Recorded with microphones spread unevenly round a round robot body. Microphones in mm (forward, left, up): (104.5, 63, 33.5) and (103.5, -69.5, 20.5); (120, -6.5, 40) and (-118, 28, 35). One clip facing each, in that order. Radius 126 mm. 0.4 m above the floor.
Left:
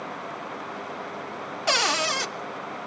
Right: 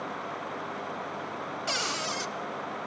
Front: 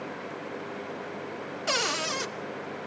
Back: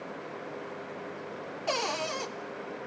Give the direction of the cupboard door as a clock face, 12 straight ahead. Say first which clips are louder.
Left 11 dB, even; 10 o'clock.